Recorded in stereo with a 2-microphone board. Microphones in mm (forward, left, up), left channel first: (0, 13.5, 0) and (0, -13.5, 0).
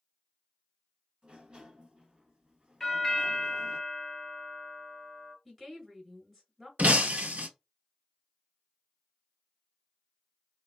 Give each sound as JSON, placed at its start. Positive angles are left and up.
{"t": 1.2, "sound": "a sliding door", "side_deg": -40, "distance_m": 1.4}
{"t": 2.8, "sound": "a doorbell", "side_deg": 15, "distance_m": 2.0}
{"t": 5.5, "sound": "a woman speaking", "side_deg": 0, "distance_m": 1.8}
{"t": 6.8, "sound": "breaking glass", "side_deg": -75, "distance_m": 0.7}